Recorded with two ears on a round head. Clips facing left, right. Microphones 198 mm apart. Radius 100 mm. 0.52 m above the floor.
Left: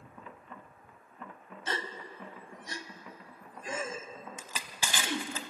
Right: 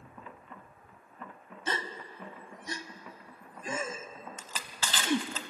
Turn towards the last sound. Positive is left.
turn(degrees=10)  # may be behind; listen again after turning